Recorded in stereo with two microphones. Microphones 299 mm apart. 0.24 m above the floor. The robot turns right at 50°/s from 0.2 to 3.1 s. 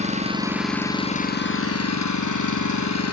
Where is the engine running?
25° right, 2 m; by 3.1 s 120° left, 2 m.